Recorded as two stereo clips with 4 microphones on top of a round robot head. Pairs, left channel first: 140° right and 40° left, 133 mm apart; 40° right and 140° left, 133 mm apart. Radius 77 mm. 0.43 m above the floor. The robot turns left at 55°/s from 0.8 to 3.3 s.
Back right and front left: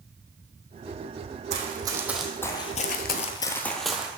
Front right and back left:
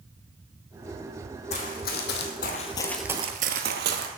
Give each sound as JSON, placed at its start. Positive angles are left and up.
{"t": 1.5, "sound": "running footsteps", "azimuth_deg": 0, "distance_m": 1.7}